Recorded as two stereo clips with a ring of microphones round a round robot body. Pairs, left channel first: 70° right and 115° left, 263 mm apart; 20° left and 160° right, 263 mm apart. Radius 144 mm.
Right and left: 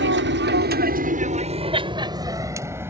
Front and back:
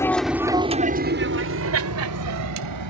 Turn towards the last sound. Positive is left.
turn(degrees=-165)